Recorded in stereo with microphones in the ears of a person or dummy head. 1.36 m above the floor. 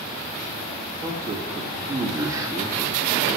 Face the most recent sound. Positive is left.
turn(degrees=-15)  # may be behind; listen again after turning